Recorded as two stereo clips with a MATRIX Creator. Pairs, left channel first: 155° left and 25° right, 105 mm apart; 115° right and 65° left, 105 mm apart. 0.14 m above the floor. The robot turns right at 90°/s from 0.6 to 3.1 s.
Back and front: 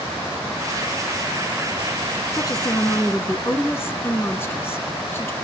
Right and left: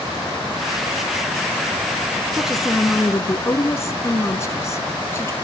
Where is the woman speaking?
140° left, 1.3 m; by 5.3 s 155° right, 1.3 m.